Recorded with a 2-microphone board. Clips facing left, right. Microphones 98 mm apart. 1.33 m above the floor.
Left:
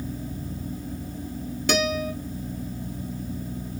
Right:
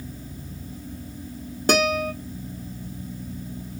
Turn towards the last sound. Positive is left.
turn(degrees=-45)  # may be behind; listen again after turning